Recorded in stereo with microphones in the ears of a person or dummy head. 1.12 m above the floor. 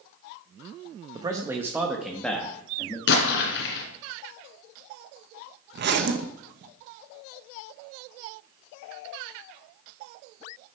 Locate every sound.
1.1 s a man speaking: 25° right (ahead or behind), 1.1 m; by 3.0 s 10° left (ahead or behind), 1.7 m
3.1 s an explosion: 60° left (ahead or behind), 2 m
5.7 s a zipper: 55° right (ahead or behind), 1.1 m